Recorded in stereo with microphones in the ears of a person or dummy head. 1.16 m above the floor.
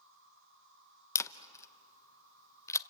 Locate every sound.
0.0 s an insect: 60° right (ahead or behind), 2.5 m
1.1 s a camera shutter: 20° left (ahead or behind), 0.7 m